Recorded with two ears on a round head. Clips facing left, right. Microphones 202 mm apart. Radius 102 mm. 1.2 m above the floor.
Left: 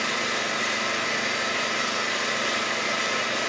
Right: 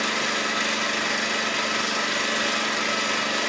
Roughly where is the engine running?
Right.